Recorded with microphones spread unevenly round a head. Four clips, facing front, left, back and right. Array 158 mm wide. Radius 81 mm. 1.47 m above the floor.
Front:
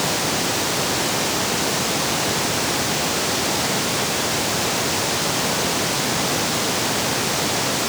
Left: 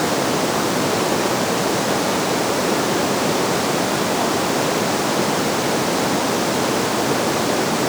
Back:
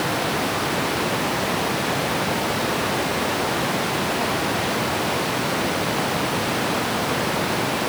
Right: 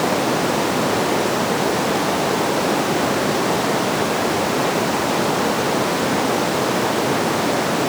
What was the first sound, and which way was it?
Only background noise.